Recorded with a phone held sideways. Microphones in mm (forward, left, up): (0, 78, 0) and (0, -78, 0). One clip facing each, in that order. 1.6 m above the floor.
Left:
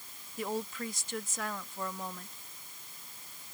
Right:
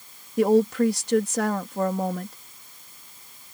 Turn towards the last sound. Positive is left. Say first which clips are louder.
# right 18 dB
turn(degrees=-75)  # may be behind; listen again after turning